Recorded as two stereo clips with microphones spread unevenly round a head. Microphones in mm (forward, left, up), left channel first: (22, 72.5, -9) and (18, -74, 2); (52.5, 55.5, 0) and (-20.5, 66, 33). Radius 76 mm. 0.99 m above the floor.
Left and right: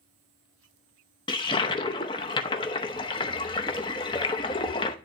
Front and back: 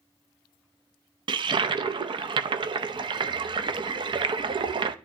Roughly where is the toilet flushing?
Behind left.